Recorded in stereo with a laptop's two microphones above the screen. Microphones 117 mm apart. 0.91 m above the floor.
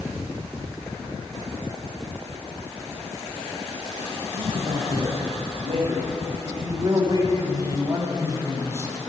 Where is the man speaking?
65° right (ahead or behind), 6.5 m; by 9.1 s 20° right (ahead or behind), 6 m.